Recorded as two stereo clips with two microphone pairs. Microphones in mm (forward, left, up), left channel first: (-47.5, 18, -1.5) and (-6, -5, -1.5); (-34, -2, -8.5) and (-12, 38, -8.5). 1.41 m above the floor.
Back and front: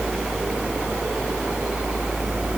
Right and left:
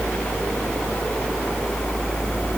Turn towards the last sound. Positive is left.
No sound to turn to.